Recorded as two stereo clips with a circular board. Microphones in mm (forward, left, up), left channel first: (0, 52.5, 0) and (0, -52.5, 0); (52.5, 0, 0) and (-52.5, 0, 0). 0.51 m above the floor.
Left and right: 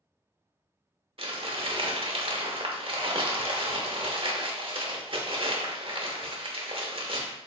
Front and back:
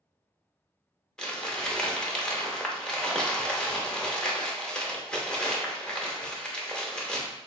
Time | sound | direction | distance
1.2 | crumpling | 80° right | 0.7 m